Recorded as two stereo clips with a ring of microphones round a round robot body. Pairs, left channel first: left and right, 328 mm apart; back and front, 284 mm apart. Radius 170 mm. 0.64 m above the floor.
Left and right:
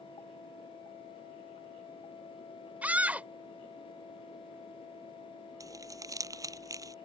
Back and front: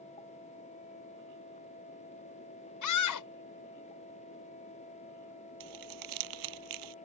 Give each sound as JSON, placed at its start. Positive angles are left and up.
{"t": 2.8, "sound": "a scream", "azimuth_deg": -175}
{"t": 5.6, "sound": "crumpling", "azimuth_deg": -10}